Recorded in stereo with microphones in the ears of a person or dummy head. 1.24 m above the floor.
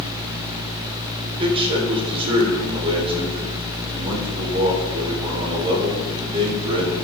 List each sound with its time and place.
1.3 s a man speaking: 30° right (ahead or behind), 3.5 m